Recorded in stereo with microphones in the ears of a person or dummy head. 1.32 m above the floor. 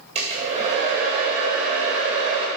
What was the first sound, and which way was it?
A hair dryer, 40° right (ahead or behind).